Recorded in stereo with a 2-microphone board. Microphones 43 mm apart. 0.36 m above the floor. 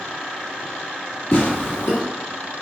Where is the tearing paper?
70° left (ahead or behind), 1.8 m.